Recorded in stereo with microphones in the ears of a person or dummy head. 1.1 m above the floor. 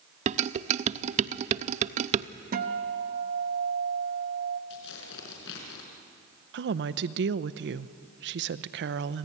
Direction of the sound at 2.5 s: 40° right (ahead or behind).